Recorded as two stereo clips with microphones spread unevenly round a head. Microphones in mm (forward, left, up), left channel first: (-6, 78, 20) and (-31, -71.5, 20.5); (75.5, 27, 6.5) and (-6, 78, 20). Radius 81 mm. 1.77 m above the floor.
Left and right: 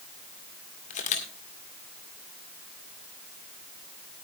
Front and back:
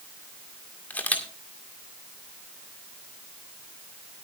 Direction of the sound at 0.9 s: 45° left.